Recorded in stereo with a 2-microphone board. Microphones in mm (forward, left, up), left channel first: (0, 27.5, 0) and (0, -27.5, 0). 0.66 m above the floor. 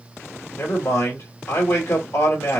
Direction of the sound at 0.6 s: 65° left (ahead or behind).